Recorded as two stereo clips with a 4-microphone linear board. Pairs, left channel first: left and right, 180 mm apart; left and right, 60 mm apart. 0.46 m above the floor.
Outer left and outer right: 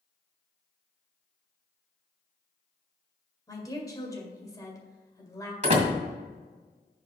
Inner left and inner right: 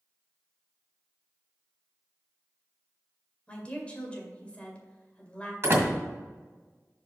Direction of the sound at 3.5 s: 20° left (ahead or behind).